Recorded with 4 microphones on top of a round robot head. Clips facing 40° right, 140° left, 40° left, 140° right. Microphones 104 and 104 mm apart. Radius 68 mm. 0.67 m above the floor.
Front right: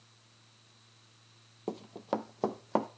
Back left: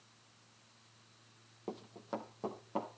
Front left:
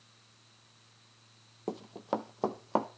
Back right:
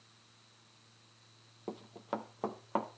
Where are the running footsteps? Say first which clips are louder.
Front right 7 dB, front left 5 dB; 5° right, 0.8 m; by 2.9 s 25° right, 1.4 m.